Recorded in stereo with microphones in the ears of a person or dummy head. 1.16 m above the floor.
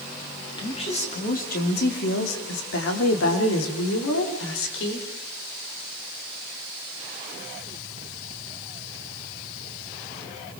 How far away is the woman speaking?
About 2.5 m.